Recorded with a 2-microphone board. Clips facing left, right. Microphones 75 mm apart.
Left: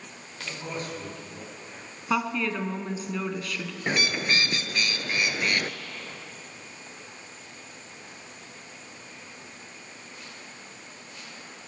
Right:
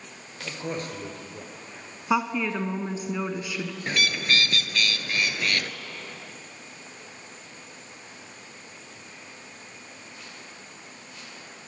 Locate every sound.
0.4 s a man speaking: 40° right (ahead or behind), 2.5 m
2.1 s a woman speaking: 15° right (ahead or behind), 1.0 m
3.9 s a bird: 20° left (ahead or behind), 0.5 m